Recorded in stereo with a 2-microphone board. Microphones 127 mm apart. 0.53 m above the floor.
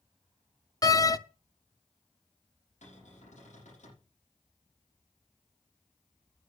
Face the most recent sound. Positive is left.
turn(degrees=75)  # may be behind; listen again after turning